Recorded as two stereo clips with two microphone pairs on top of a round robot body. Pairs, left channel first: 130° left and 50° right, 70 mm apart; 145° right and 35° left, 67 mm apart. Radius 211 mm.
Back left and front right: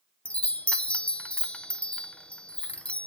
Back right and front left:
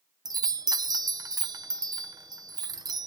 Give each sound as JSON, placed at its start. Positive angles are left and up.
{"t": 0.2, "sound": "a chime", "azimuth_deg": 60, "distance_m": 0.7}